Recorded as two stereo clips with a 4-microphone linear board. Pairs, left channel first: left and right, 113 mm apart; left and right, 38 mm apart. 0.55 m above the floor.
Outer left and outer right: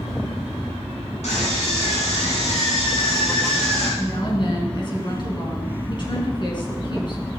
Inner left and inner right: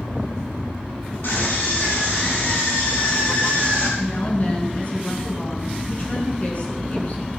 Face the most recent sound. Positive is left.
turn(degrees=40)  # may be behind; listen again after turning